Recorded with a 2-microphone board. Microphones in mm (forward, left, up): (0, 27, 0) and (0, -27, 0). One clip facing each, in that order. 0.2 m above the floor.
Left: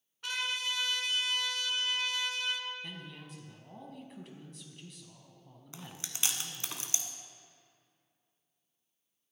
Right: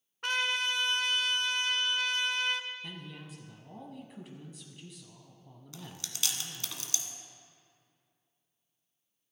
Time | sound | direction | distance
0.2 | a trumpet | 55° right (ahead or behind) | 0.8 m
2.8 | a man speaking | centre (ahead or behind) | 1.1 m
5.7 | chewing | 30° left (ahead or behind) | 0.9 m